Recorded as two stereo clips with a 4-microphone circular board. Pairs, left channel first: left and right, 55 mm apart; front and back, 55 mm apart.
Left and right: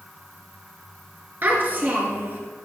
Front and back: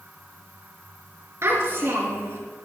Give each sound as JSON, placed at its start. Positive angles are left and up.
{"t": 1.4, "sound": "a child speaking", "azimuth_deg": -140, "distance_m": 3.5}